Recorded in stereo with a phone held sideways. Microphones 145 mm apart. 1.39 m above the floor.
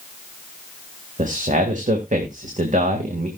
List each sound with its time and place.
1.2 s a man speaking: 60° right (ahead or behind), 1.8 m